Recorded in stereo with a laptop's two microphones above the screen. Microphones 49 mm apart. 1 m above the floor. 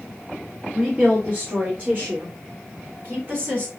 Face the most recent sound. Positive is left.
turn(degrees=-50)  # may be behind; listen again after turning